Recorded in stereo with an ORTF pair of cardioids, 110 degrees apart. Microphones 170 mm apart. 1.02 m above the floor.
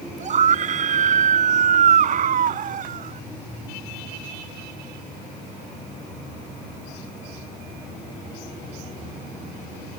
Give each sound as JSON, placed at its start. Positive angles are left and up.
{"t": 0.2, "sound": "a scream", "azimuth_deg": -45}